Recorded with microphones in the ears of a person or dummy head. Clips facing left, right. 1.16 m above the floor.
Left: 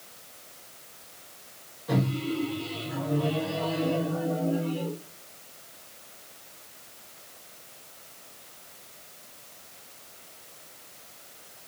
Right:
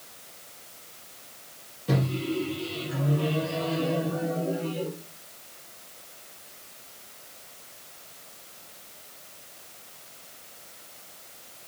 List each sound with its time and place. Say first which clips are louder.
1.9 s a microwave: even; 40° right (ahead or behind), 0.9 m